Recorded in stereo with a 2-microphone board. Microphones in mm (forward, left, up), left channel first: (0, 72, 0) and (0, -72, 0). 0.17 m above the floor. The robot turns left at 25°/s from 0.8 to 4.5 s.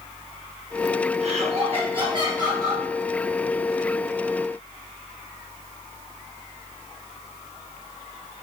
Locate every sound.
1.2 s laughter: 115° right, 2.5 m; by 2.8 s 155° right, 2.5 m